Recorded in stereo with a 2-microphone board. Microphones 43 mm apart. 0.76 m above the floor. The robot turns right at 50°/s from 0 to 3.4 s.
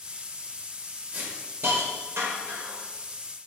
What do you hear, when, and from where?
1.1 s a hiss: 35° right (ahead or behind), 1.1 m; by 2.8 s 60° right (ahead or behind), 1.1 m